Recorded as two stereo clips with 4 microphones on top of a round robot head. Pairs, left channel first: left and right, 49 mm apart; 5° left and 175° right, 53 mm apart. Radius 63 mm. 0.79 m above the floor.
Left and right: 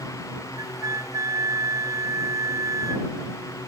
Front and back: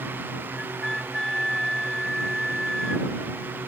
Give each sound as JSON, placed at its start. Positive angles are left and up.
{"t": 0.6, "sound": "a flute", "azimuth_deg": -80}